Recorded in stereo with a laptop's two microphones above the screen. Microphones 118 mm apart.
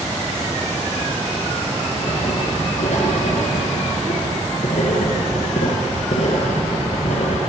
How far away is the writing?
About 7 m.